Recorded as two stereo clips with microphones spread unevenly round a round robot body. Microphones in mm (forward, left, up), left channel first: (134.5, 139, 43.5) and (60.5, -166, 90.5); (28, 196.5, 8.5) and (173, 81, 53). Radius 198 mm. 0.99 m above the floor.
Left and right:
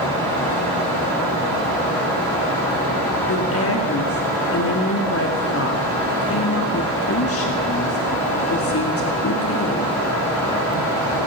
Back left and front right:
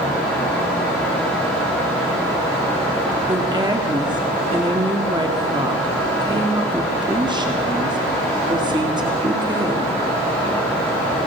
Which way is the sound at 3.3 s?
30° left.